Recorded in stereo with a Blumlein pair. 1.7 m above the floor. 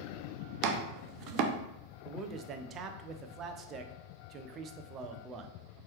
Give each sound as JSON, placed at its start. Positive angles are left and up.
{"t": 0.6, "sound": "chopping", "azimuth_deg": -40, "distance_m": 0.5}
{"t": 2.0, "sound": "a man speaking", "azimuth_deg": -30, "distance_m": 0.5}